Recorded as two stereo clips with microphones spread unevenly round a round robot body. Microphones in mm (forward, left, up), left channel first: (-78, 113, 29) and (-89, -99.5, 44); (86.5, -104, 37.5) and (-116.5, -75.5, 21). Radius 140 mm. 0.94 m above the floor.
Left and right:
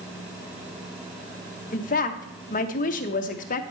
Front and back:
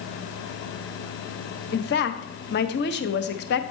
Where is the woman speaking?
35° left, 0.5 m.